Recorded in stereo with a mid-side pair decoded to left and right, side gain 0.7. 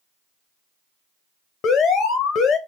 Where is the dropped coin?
No dropped coin in this recording.